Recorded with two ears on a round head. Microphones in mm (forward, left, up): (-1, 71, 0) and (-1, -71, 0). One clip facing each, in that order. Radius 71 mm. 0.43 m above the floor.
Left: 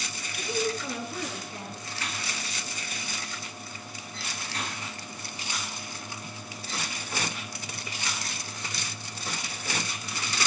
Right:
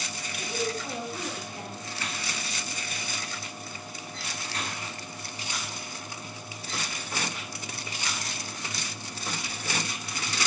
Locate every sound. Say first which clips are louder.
0.4 s a woman speaking: left 2 dB; 50° left (ahead or behind), 8.5 m